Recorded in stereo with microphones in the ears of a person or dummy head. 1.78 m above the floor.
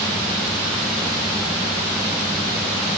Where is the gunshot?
No gunshot in this recording.